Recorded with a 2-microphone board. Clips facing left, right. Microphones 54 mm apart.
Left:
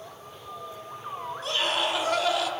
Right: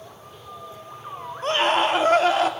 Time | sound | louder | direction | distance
1.4 | a scream | right 8 dB | 40° right (ahead or behind) | 1.1 m